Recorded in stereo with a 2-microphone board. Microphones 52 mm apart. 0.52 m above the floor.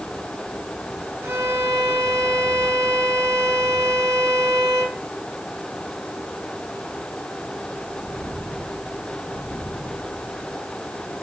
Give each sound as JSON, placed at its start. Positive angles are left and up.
{"t": 1.2, "sound": "a violin", "side_deg": -60, "distance_m": 6.0}